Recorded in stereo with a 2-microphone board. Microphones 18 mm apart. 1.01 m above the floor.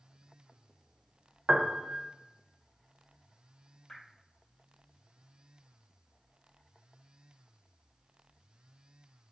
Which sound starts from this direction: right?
A piano, at 1.5 s.